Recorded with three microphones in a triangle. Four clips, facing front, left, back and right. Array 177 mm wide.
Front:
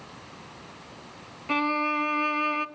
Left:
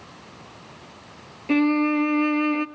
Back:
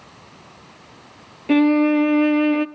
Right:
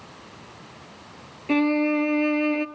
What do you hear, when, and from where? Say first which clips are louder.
1.5 s a violin: left 1 dB, back 11 dB; straight behind, 0.5 m